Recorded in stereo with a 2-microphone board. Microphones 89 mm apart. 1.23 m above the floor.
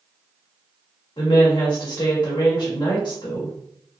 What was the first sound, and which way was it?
A woman speaking, 75° left (ahead or behind).